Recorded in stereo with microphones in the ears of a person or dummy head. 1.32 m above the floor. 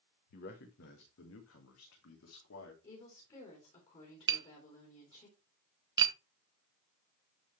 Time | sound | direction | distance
0.3 | a man speaking | 45° left (ahead or behind) | 1.2 m
2.8 | a woman speaking | 30° left (ahead or behind) | 3 m
4.3 | tapping | 20° right (ahead or behind) | 0.7 m